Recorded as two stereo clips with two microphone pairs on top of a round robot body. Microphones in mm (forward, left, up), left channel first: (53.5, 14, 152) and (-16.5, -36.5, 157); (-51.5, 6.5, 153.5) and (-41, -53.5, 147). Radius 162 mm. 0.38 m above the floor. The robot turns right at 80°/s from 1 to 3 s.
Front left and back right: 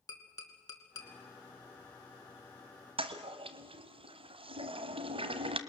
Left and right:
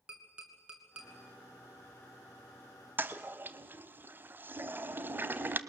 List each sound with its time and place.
0.1 s tapping: 5° right, 2.5 m; by 1.1 s straight ahead, 2.5 m
3.0 s a toilet flushing: 140° right, 1.0 m; by 5.6 s 135° right, 1.0 m